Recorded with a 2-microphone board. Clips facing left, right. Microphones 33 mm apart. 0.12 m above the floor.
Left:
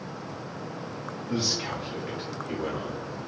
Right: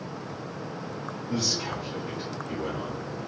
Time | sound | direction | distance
1.3 | a man speaking | 35° left (ahead or behind) | 1.3 m